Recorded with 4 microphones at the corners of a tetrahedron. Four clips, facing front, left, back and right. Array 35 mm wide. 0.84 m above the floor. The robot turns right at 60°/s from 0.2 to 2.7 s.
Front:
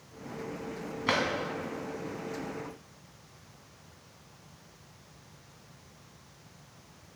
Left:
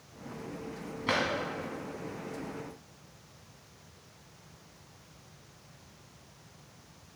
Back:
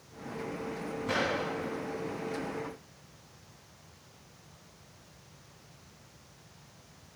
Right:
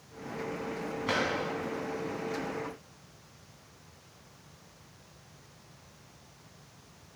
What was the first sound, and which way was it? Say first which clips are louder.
A drawer: left 1 dB, front 3 dB; 10° left.